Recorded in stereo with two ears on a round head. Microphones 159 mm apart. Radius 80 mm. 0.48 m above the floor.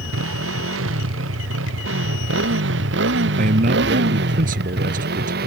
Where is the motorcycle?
90° right; by 5.5 s 60° right (ahead or behind).